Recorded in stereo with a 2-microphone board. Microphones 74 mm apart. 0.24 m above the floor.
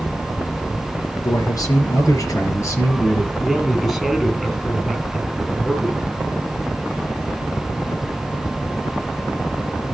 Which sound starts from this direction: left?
A man speaking, at 1.2 s.